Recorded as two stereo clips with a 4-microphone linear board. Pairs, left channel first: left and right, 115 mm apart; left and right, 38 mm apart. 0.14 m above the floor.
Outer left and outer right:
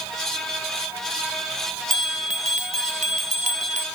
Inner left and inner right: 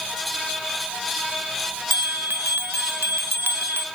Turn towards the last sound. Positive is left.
turn(degrees=-90)